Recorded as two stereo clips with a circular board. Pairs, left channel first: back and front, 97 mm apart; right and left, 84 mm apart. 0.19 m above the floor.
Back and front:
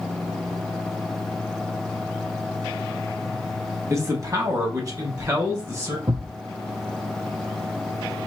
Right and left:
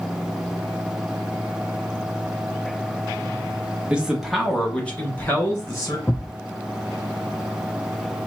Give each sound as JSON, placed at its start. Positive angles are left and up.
{"t": 3.9, "sound": "a man speaking", "azimuth_deg": 25, "distance_m": 1.1}
{"t": 6.1, "sound": "a thud", "azimuth_deg": -30, "distance_m": 0.6}